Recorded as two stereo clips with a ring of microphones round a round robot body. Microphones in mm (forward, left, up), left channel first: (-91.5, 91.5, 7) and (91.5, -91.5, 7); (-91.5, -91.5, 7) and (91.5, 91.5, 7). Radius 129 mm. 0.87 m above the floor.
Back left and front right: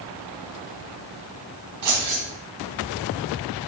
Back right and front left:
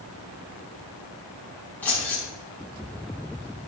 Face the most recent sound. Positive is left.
turn(degrees=-50)